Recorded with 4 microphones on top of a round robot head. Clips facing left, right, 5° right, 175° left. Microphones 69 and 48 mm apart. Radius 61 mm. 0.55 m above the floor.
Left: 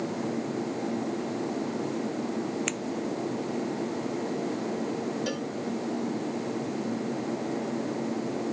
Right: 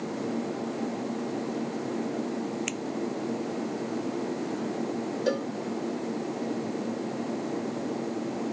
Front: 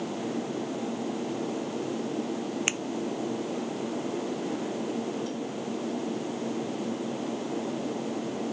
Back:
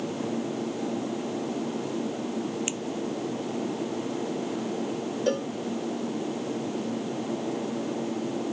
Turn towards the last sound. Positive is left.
turn(degrees=-145)